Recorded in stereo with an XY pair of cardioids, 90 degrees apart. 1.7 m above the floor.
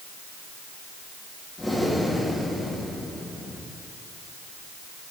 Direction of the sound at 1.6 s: 20° left.